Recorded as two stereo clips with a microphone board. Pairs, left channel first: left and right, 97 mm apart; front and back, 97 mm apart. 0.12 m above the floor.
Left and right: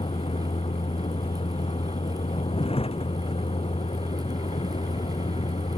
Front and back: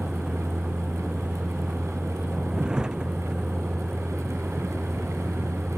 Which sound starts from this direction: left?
A vehicle, at 0.0 s.